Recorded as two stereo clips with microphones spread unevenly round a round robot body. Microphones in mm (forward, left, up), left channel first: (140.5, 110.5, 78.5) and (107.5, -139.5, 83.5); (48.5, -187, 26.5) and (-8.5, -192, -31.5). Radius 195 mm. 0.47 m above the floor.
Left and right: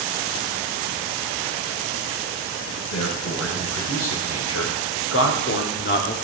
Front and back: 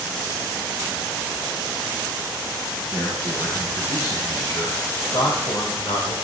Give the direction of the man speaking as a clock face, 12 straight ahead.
9 o'clock.